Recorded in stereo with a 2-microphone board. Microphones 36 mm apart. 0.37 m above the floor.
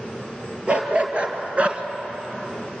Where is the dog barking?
25° right (ahead or behind), 3 m; by 1.8 s 35° right (ahead or behind), 1.3 m.